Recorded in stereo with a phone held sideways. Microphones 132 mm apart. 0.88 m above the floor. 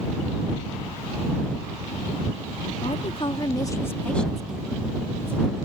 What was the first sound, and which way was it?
A woman speaking, 55° left (ahead or behind).